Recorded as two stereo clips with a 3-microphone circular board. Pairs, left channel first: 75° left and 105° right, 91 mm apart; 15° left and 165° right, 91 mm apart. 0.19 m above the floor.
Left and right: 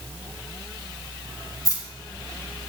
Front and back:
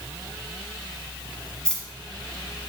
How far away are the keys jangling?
About 0.9 m.